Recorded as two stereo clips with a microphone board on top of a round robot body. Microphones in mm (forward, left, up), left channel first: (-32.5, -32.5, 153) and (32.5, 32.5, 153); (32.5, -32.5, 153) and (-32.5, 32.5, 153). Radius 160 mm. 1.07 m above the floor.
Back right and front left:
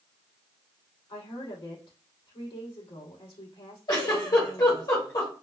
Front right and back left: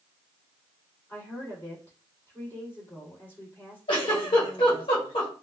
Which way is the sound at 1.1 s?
110° right.